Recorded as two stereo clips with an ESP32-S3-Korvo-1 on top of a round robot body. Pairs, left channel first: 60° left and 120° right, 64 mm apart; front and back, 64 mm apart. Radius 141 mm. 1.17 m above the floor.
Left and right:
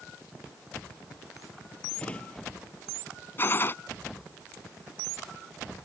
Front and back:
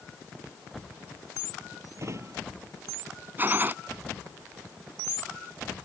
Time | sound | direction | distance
2.0 | a drawer | 135° left | ?
3.4 | a gunshot | 120° left | ?